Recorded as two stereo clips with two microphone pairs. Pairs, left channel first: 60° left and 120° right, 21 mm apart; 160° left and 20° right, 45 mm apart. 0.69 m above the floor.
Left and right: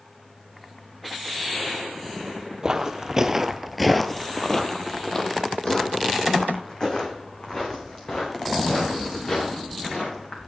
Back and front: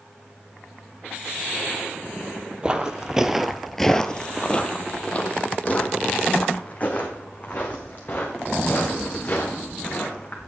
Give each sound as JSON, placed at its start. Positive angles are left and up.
{"t": 2.6, "sound": "footsteps", "azimuth_deg": -80, "distance_m": 0.9}